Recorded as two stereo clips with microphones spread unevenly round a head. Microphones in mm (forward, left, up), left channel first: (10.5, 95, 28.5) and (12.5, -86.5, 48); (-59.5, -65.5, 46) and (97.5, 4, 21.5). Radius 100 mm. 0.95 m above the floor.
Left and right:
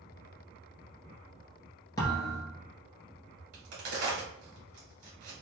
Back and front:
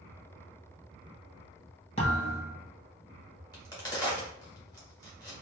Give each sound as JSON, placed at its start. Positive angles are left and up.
{"t": 2.0, "sound": "a thud", "azimuth_deg": 165, "distance_m": 1.3}
{"t": 3.5, "sound": "a crack", "azimuth_deg": -85, "distance_m": 2.0}